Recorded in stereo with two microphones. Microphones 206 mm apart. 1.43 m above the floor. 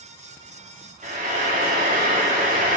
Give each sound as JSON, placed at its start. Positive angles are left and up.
{"t": 1.0, "sound": "frying", "side_deg": -40, "distance_m": 3.0}